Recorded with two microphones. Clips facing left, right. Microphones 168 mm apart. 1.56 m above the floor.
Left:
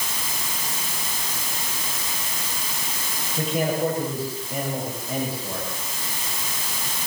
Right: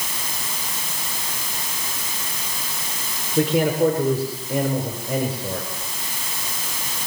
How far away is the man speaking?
About 5.5 m.